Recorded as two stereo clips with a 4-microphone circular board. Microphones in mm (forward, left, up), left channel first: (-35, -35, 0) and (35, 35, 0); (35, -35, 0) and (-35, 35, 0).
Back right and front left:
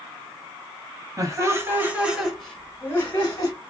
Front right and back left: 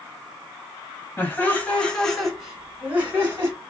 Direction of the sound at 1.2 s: 10° left.